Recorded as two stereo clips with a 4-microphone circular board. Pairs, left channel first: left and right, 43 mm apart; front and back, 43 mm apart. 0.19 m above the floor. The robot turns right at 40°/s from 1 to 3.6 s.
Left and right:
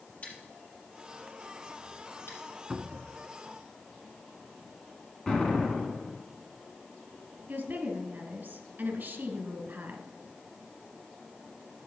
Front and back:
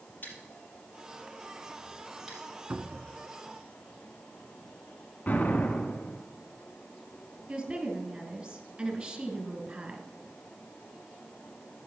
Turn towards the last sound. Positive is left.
turn(degrees=-130)